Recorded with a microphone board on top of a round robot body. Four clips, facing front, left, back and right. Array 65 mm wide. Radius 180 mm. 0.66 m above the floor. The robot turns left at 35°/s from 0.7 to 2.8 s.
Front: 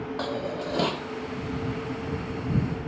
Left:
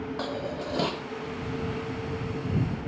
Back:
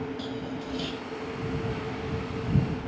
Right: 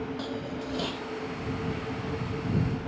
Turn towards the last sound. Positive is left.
turn(degrees=-45)